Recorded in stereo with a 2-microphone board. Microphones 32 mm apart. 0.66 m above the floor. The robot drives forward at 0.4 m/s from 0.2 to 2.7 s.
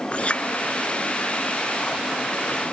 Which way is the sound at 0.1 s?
35° left (ahead or behind).